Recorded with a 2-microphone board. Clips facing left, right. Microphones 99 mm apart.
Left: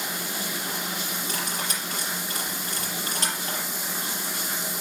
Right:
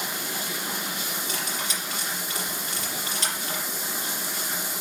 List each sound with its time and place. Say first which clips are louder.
1.3 s cutlery clinking: left 1 dB; 45° left (ahead or behind), 5 m